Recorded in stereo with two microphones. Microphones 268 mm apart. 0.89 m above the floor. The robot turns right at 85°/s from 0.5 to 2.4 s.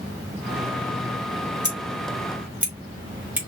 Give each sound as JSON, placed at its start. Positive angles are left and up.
{"t": 1.6, "sound": "scissors", "side_deg": 60, "distance_m": 2.5}